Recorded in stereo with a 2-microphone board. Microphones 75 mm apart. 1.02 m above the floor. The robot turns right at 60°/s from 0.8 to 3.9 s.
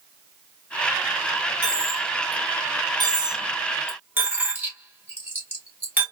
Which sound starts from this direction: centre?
A dropped coin, at 1.6 s.